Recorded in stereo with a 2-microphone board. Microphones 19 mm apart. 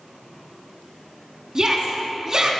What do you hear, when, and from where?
1.6 s a shout: 35° right (ahead or behind), 1.5 m